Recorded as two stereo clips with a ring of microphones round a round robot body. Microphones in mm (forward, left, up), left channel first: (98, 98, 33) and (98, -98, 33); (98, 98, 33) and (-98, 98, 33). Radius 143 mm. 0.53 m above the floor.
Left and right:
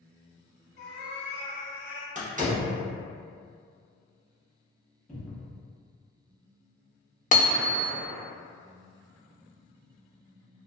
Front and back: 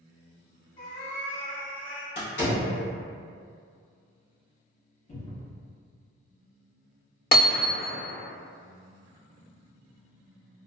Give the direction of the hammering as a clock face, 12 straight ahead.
11 o'clock.